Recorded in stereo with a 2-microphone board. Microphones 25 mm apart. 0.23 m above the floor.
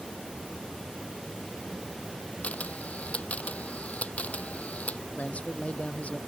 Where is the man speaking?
65° left (ahead or behind).